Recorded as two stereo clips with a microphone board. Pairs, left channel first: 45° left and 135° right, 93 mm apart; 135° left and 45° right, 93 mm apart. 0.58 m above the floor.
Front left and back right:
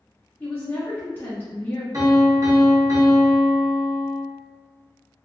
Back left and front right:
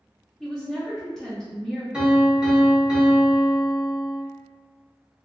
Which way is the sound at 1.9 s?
115° right.